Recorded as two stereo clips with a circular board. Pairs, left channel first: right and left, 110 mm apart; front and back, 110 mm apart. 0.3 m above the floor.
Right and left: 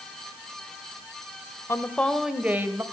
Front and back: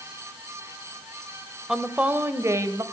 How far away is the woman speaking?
About 1.0 m.